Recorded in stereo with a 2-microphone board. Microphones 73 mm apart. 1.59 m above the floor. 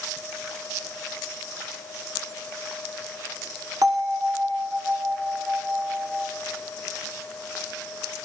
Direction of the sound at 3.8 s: 65° right (ahead or behind).